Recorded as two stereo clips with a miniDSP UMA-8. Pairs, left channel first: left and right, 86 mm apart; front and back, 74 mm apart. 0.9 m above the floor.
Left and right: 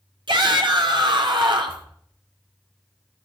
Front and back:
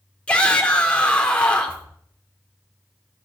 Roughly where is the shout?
Right.